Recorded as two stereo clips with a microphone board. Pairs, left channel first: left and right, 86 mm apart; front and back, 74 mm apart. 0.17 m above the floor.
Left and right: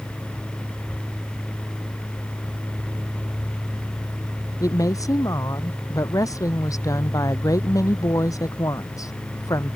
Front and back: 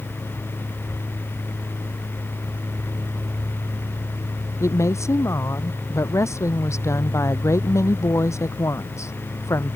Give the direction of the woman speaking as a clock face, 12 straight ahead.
11 o'clock.